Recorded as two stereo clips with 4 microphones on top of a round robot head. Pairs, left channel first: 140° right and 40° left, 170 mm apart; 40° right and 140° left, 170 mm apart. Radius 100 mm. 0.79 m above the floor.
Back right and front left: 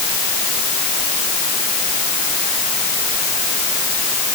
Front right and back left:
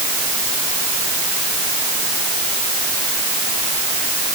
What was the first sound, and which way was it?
Only background noise.